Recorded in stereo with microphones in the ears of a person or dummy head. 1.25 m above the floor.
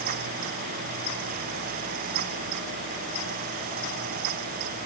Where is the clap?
No clap in this recording.